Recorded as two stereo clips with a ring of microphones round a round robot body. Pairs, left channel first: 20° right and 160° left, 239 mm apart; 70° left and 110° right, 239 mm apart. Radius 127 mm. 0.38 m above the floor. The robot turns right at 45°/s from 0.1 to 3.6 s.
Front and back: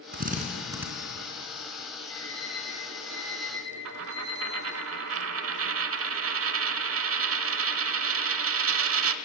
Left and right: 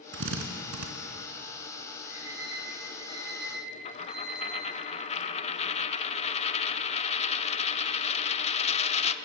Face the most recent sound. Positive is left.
turn(degrees=130)